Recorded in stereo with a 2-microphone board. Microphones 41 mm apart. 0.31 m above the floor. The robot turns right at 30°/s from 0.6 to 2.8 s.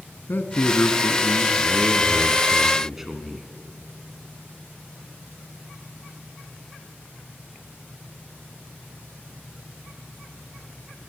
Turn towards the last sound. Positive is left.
turn(degrees=-170)